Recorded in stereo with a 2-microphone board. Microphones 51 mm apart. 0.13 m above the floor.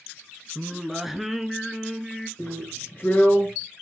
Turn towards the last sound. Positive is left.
turn(degrees=35)  # may be behind; listen again after turning